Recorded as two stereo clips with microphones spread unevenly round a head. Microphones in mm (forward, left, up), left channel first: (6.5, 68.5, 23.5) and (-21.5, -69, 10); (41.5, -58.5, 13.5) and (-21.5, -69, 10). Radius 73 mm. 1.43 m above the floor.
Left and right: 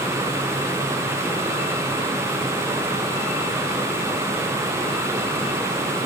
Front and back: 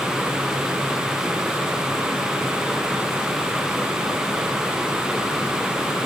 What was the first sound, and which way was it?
Only background noise.